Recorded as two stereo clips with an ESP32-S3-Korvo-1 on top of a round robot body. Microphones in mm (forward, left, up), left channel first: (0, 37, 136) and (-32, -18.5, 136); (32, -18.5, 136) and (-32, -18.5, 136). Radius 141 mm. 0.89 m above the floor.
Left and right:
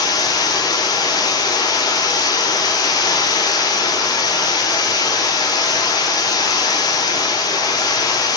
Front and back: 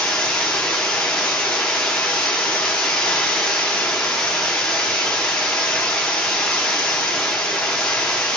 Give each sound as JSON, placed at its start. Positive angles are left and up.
{"t": 0.0, "sound": "running water", "azimuth_deg": 75, "distance_m": 0.7}